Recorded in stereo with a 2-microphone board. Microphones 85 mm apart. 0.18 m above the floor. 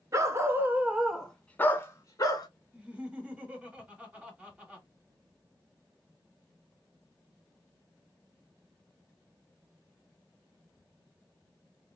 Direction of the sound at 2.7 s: 15° right (ahead or behind).